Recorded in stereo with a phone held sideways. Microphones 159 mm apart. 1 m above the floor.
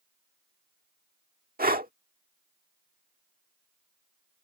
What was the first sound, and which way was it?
Breathing, 75° right (ahead or behind).